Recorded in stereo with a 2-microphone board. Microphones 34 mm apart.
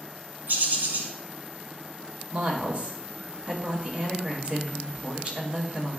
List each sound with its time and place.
0.5 s a bird: 60° right (ahead or behind), 1.6 m
2.3 s a woman speaking: 35° right (ahead or behind), 1.5 m